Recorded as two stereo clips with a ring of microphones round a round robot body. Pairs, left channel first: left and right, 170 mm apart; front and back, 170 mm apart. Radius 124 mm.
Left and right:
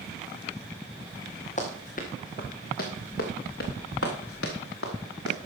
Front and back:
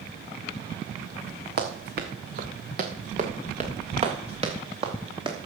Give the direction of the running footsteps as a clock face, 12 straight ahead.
7 o'clock.